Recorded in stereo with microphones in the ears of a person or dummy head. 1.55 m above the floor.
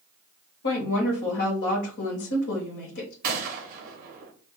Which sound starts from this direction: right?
A gunshot, at 3.2 s.